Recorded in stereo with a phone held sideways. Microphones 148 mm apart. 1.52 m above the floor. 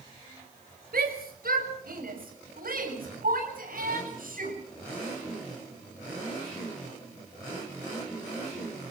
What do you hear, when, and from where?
0.9 s a shout: 85° right, 6 m; by 4.6 s 70° right (ahead or behind), 11 m